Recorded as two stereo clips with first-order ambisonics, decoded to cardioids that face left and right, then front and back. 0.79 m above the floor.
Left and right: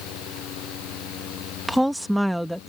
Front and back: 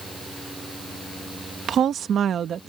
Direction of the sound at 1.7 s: 175° right.